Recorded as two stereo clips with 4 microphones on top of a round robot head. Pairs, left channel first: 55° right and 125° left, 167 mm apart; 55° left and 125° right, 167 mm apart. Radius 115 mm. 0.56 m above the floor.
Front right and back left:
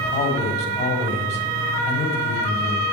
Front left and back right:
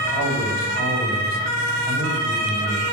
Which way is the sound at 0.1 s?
100° right.